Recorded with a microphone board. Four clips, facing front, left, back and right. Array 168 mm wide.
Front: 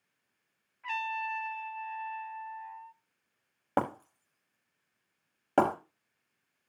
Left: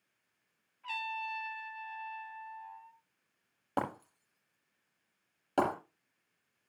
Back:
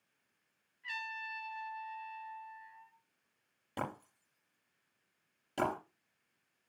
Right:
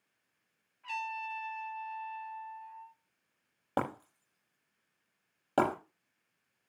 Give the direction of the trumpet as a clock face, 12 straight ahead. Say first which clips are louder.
Right 1 dB, front 10 dB; 12 o'clock.